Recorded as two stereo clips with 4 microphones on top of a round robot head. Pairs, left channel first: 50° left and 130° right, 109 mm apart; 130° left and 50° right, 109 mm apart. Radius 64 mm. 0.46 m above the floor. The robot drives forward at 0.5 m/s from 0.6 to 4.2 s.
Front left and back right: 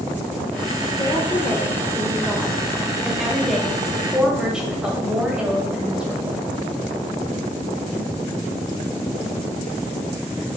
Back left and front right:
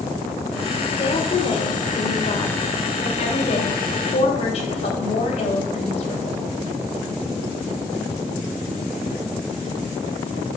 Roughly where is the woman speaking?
Left.